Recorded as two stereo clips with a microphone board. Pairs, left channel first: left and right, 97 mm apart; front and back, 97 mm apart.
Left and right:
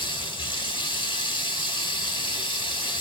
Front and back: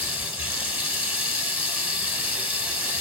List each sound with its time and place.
0.0 s running water: 110° left, 1.0 m